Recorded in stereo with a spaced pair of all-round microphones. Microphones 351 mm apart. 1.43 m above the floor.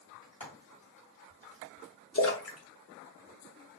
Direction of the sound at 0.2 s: 60° left (ahead or behind).